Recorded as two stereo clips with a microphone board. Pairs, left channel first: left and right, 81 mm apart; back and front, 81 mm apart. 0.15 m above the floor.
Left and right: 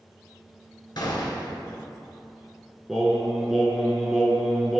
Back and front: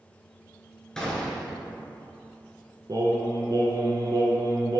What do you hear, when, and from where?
1.0 s a gunshot: 100° left, 0.6 m
2.9 s singing: straight ahead, 0.5 m